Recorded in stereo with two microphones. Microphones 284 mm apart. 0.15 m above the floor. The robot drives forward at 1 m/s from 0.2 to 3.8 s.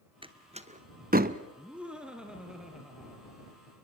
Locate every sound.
0.2 s a door slam: 15° right (ahead or behind), 1.4 m; by 1.4 s 30° right (ahead or behind), 0.8 m
1.6 s laughter: 5° right (ahead or behind), 1.7 m; by 3.4 s centre (ahead or behind), 3.5 m